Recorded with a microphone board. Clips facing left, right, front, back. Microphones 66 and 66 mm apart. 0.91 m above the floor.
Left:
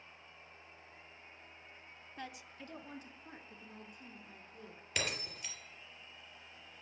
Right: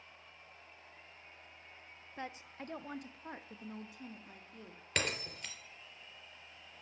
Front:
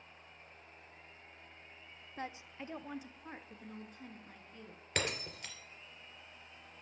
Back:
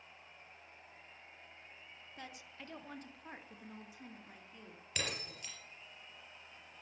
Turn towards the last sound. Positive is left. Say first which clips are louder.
# right 2 dB, front 4 dB
turn(degrees=-45)